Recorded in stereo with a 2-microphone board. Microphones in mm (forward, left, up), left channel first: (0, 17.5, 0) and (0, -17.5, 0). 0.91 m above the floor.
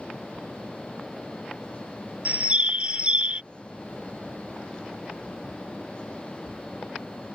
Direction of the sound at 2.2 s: 35° right (ahead or behind).